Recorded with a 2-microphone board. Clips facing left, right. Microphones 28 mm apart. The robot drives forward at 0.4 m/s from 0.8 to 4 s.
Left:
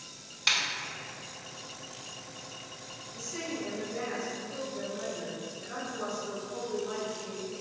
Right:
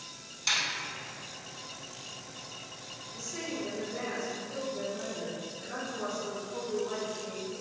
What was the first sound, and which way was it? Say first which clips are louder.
A snare drum: left 2 dB; 35° left (ahead or behind).